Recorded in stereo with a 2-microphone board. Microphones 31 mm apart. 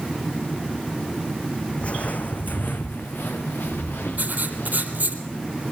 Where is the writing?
55° right (ahead or behind), 4 m.